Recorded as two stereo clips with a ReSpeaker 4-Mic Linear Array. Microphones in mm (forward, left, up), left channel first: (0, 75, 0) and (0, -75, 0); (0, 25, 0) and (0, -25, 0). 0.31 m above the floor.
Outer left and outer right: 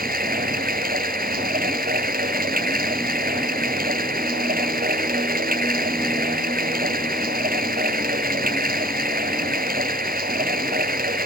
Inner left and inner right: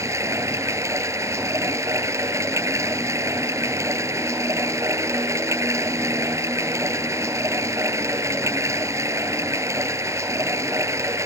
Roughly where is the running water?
Right.